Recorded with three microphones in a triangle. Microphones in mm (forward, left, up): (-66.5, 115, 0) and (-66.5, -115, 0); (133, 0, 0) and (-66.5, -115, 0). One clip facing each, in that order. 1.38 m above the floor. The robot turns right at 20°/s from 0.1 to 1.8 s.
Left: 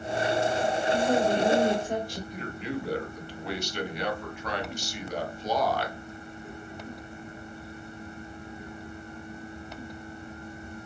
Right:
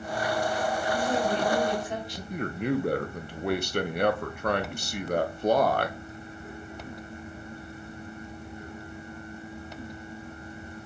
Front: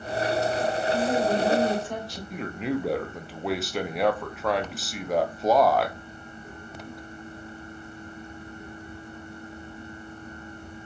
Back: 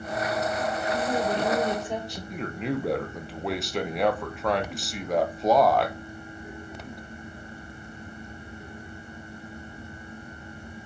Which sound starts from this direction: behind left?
A woman speaking, at 0.9 s.